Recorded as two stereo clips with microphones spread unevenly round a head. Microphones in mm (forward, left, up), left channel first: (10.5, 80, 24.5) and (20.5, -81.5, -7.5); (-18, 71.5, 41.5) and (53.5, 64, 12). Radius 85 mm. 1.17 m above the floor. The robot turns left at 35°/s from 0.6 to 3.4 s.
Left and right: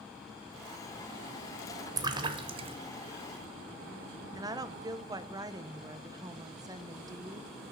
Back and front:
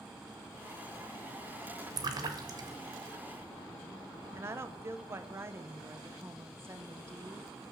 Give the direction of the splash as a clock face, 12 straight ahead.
1 o'clock.